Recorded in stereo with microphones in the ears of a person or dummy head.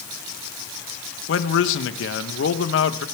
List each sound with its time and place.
1.3 s a man speaking: 70° left (ahead or behind), 1.2 m